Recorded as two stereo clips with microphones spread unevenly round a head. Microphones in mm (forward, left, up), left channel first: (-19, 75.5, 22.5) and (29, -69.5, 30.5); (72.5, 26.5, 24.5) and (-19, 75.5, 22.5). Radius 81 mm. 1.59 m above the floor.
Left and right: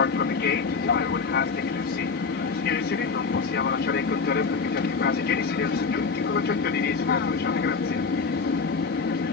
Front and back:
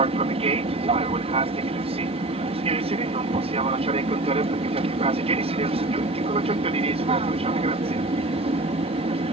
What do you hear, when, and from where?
0.0 s an aircraft: 130° left